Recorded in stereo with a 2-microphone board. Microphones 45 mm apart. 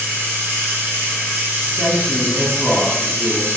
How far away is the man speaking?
About 1.6 m.